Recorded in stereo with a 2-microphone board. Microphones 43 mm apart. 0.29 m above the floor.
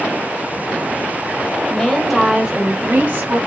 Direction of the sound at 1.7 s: 20° left (ahead or behind).